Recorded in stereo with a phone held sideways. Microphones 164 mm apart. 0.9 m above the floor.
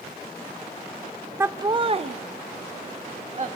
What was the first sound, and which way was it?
Laughter, 15° right (ahead or behind).